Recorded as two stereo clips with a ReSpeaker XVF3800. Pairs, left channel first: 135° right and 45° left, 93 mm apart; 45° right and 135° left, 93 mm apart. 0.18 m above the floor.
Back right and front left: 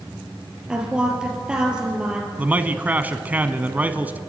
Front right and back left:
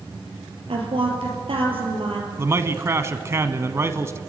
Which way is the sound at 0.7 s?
125° left.